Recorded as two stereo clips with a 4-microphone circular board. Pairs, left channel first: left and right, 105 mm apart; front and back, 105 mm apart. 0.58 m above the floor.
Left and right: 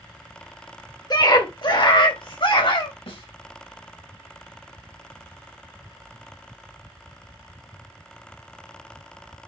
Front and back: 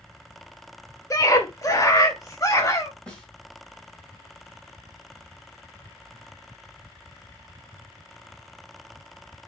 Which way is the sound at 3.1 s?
80° left.